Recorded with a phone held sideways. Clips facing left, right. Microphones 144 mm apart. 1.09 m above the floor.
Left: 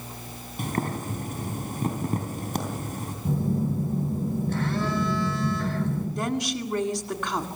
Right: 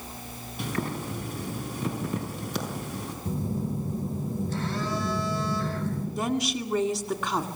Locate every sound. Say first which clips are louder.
0.6 s boiling: left 2 dB; 50° left (ahead or behind), 4 m
3.2 s a phone buzzing: left 5 dB; 60° left (ahead or behind), 9 m
6.2 s a woman speaking: even; 5° right (ahead or behind), 2 m